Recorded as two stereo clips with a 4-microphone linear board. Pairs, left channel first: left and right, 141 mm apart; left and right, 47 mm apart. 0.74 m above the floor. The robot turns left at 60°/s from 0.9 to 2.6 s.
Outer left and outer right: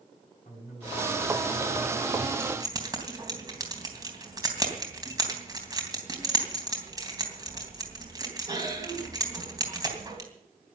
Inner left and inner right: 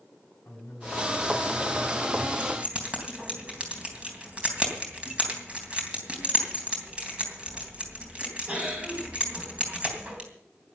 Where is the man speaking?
60° left, 7 m; by 2.3 s 25° right, 7 m.